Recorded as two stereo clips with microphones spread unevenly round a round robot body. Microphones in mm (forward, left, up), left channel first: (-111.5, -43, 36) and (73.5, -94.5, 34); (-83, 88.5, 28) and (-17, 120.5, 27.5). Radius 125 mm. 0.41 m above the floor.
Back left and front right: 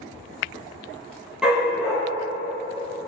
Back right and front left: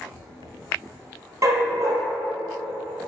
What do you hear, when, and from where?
1.4 s a dog barking: 70° left, 3 m